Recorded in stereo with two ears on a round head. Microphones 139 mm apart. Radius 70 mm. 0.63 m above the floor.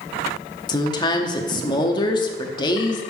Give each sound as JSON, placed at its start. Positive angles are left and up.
{"t": 0.7, "sound": "a woman speaking", "side_deg": 30, "distance_m": 0.9}